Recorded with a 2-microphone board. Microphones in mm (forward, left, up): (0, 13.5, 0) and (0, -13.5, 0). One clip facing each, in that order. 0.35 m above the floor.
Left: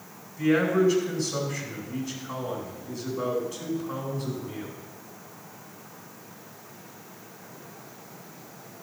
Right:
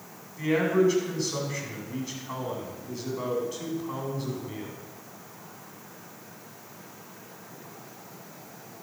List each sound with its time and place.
0.4 s a man speaking: 15° right (ahead or behind), 3 m